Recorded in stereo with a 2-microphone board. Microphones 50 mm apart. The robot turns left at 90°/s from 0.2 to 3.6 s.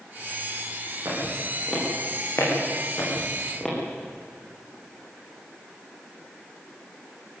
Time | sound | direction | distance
1.1 | footsteps | 60° right (ahead or behind) | 9 m